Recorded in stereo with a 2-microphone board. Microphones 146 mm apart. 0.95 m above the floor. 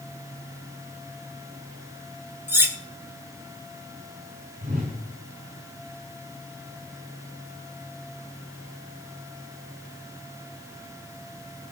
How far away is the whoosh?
About 2 m.